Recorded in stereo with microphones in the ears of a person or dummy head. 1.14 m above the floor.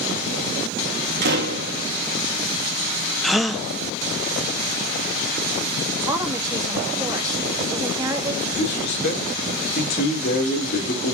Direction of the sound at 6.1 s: 20° right (ahead or behind).